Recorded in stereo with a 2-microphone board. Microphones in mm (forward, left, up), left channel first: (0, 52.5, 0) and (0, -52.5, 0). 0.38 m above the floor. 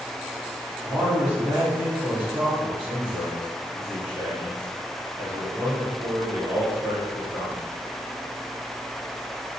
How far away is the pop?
No pop in this recording.